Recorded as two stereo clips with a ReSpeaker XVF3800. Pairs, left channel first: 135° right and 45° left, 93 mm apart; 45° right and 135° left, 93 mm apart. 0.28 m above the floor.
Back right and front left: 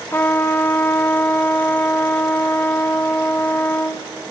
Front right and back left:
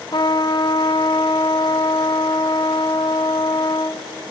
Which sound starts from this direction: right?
A trumpet, at 0.1 s.